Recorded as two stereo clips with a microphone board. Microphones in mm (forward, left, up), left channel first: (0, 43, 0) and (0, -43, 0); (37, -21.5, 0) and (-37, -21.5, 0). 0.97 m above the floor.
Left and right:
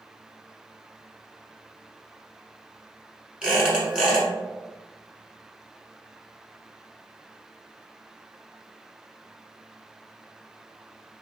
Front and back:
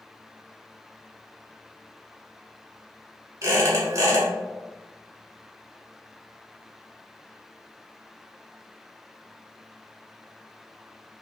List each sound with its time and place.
3.4 s a squeak: 165° right, 1.1 m